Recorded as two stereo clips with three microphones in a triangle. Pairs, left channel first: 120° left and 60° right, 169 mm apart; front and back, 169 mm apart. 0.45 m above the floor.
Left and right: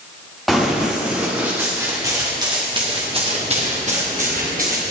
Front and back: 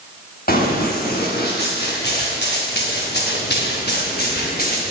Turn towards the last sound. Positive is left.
turn(degrees=-30)